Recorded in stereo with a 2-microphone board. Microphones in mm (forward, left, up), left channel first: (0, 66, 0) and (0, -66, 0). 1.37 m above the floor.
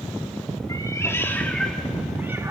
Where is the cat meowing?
30° left (ahead or behind), 1.6 m; by 2.5 s 25° right (ahead or behind), 1.2 m.